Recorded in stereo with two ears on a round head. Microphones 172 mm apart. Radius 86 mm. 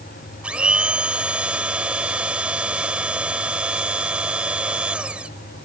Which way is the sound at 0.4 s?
5° right (ahead or behind).